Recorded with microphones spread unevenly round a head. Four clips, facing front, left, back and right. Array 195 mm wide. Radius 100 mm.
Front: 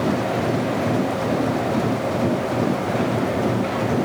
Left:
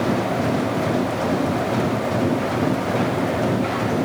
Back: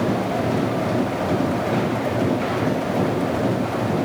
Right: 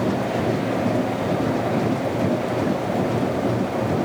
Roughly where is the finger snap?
I don't hear a finger snap.